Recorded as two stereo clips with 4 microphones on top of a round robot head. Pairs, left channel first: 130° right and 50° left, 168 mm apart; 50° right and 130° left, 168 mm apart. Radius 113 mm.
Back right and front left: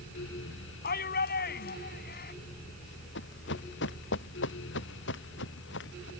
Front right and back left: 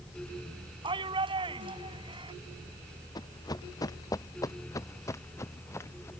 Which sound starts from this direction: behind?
A shout, at 0.8 s.